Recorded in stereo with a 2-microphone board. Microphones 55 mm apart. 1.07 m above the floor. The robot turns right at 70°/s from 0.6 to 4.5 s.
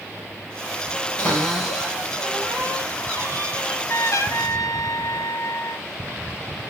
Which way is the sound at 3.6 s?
30° left.